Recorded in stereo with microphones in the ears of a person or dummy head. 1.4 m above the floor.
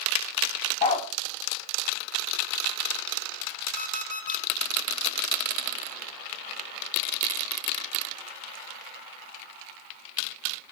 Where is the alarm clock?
45° left (ahead or behind), 3.5 m.